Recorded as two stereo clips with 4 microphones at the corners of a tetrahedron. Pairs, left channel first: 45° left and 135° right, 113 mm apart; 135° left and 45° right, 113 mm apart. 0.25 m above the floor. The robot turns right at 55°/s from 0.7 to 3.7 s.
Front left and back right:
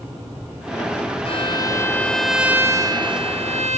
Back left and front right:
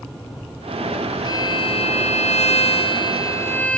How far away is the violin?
About 0.7 m.